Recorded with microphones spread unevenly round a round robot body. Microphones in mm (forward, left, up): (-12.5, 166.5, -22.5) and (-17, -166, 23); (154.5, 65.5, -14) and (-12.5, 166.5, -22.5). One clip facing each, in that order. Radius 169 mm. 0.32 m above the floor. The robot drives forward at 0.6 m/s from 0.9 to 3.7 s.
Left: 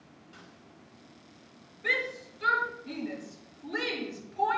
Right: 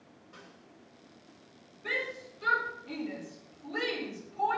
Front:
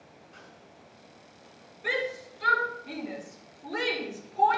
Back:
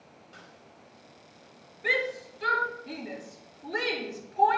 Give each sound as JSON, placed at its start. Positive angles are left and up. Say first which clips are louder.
{"t": 0.3, "sound": "a snare drum", "louder": "right 2 dB, even", "azimuth_deg": 155, "distance_m": 1.8}
{"t": 1.8, "sound": "a shout", "louder": "left 2 dB, even", "azimuth_deg": 70, "distance_m": 5.5}